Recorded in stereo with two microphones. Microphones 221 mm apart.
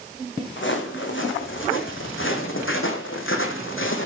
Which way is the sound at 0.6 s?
60° left (ahead or behind).